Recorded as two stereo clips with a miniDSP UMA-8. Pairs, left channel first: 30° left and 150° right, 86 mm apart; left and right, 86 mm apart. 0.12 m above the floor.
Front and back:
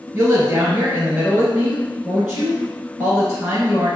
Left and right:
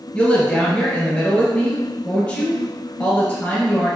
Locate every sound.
0.1 s a woman speaking: 135° left, 1.5 m